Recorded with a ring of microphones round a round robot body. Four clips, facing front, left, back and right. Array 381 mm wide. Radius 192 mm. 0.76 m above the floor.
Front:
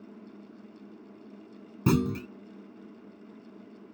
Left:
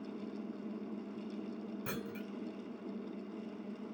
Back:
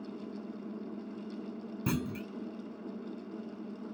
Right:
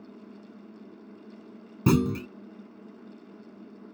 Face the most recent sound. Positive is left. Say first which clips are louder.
# right 23 dB, front 9 dB
turn(degrees=-60)